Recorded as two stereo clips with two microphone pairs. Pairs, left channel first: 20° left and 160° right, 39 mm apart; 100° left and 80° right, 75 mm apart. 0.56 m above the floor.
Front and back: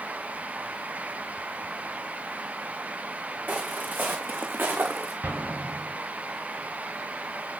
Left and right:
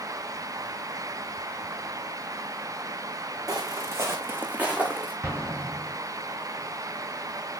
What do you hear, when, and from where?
3.5 s footsteps: 120° right, 2 m; by 5.1 s 165° right, 2.5 m
5.2 s an explosion: 140° right, 4 m